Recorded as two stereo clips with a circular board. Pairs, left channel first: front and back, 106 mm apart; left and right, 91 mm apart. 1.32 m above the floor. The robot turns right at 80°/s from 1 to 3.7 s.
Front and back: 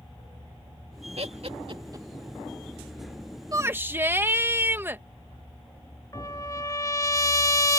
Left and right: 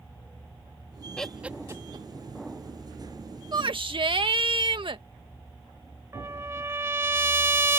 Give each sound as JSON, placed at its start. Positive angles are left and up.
{"t": 1.2, "sound": "laughter", "azimuth_deg": 170}
{"t": 3.5, "sound": "a shout", "azimuth_deg": -125}
{"t": 6.1, "sound": "a trumpet", "azimuth_deg": -40}